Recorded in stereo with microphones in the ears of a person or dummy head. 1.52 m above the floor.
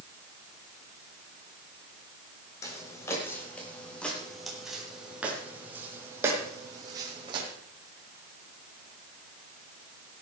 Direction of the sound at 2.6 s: 20° left (ahead or behind).